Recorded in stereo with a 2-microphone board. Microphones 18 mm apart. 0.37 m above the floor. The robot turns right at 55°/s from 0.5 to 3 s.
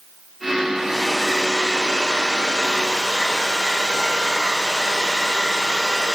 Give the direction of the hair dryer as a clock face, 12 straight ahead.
6 o'clock.